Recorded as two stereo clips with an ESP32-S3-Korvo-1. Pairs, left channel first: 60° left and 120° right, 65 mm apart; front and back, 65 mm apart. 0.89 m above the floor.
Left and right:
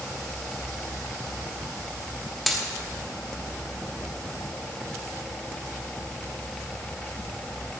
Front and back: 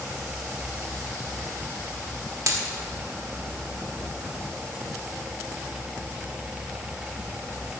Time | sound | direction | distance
2.5 | a dropped coin | 150° left | 1.2 m